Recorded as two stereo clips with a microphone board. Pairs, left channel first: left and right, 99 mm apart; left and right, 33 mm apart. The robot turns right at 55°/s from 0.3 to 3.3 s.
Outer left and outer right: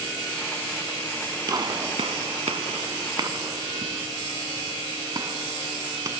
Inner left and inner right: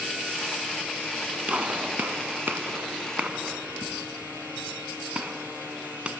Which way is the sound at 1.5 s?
40° right (ahead or behind).